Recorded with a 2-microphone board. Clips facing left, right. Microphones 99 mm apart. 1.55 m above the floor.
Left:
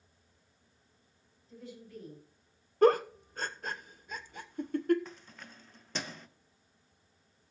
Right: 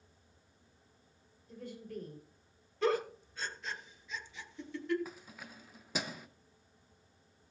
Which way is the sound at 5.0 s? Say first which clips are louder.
Right 1 dB; 5° right (ahead or behind).